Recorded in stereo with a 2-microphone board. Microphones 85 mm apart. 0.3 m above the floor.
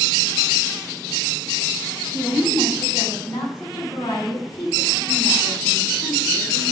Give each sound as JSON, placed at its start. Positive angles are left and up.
{"t": 2.1, "sound": "a woman speaking", "side_deg": 50, "distance_m": 2.0}